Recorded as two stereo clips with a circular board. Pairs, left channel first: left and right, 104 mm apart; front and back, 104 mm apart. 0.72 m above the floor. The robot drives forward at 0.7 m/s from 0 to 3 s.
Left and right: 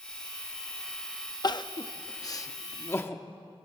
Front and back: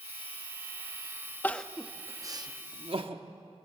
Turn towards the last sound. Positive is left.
turn(degrees=155)